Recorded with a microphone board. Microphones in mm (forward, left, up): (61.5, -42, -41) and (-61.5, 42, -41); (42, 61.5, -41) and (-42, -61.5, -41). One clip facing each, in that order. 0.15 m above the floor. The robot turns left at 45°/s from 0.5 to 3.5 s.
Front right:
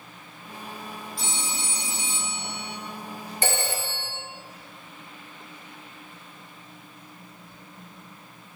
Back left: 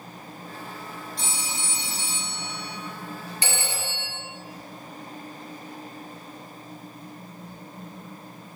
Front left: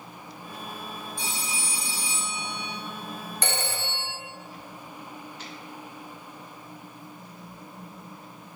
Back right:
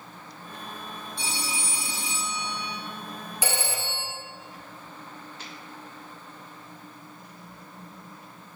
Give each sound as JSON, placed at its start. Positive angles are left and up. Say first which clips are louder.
{"t": 1.2, "sound": "a phone ringing", "louder": "front right 2 dB, back right 4 dB", "azimuth_deg": -120, "distance_m": 3.5}
{"t": 3.4, "sound": "a phone ringing", "louder": "front right 5 dB, back right 1 dB", "azimuth_deg": -40, "distance_m": 1.4}